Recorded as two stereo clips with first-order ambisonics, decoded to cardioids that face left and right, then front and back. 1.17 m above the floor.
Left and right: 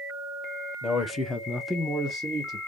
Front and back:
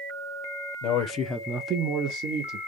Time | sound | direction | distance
0.8 | a man speaking | 25° left | 0.8 m